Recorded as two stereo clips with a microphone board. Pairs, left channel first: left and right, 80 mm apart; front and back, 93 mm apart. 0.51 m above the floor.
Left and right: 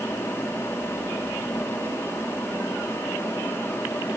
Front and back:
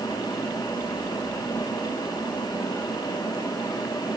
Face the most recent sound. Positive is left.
No sound to turn to.